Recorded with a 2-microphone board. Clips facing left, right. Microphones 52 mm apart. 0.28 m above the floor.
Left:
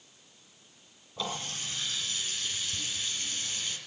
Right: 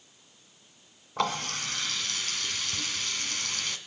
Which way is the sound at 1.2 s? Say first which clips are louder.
Right 7 dB; 65° right (ahead or behind).